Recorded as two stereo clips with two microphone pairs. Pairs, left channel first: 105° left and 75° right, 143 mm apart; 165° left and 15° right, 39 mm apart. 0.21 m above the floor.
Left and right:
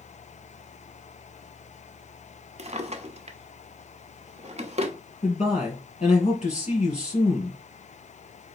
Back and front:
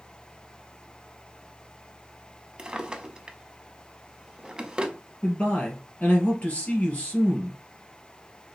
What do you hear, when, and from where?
2.6 s a drawer: 75° right, 0.6 m
5.2 s a man speaking: 125° left, 2.5 m